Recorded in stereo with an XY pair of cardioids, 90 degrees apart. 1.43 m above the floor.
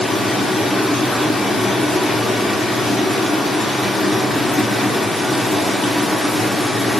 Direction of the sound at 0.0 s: 35° left.